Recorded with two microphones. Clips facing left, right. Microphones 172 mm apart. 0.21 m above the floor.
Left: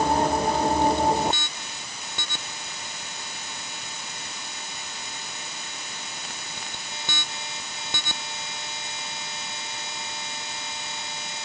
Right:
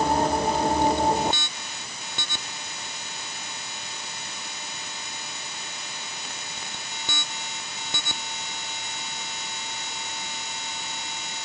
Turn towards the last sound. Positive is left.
No sound to turn to.